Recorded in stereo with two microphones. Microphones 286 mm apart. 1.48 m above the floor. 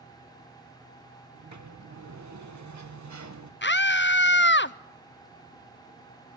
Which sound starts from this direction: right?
A sliding door, at 1.3 s.